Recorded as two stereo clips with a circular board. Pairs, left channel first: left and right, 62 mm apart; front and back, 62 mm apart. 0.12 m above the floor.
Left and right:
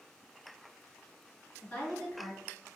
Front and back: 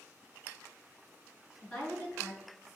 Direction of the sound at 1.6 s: 45° left.